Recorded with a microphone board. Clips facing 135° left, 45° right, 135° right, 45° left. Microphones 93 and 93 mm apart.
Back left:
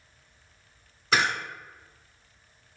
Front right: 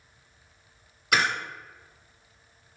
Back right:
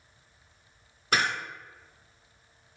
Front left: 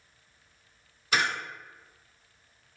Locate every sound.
1.1 s a camera shutter: 145° right, 1.9 m